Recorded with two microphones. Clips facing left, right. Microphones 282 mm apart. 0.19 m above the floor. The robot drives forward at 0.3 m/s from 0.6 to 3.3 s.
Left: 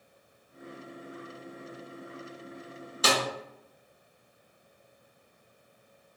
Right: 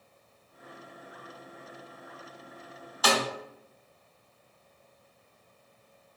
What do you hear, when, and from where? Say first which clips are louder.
3.0 s a snare drum: right 1 dB; 25° left (ahead or behind), 0.7 m